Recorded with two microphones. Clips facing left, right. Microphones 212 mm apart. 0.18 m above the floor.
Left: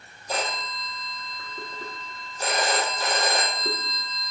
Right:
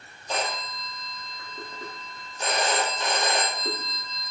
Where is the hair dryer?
No hair dryer in this recording.